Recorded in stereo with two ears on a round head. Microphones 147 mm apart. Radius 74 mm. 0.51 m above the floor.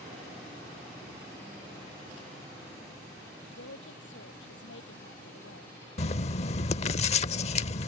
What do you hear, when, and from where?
3.5 s a woman speaking: 80° left
6.0 s writing: 40° left (ahead or behind)